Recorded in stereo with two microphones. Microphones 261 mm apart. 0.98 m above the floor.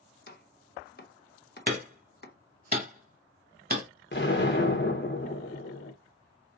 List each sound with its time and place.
0.3 s chopping: 40° left (ahead or behind), 1.1 m
1.7 s hammering: 35° right (ahead or behind), 1.4 m
4.1 s an explosion: 40° left (ahead or behind), 1.1 m